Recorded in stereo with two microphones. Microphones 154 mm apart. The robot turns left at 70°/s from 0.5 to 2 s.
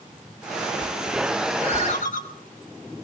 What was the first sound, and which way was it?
A ringtone, 40° left (ahead or behind).